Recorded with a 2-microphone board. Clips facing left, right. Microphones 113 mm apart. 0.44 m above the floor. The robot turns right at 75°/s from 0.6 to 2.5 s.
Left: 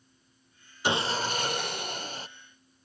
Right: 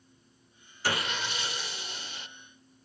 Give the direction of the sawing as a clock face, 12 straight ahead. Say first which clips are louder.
Left 4 dB; 11 o'clock.